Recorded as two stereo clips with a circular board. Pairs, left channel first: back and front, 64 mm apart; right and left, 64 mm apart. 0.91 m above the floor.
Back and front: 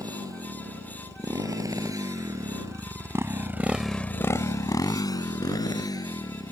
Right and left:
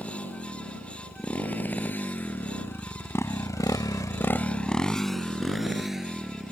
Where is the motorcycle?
20° right; by 6.5 s 175° left.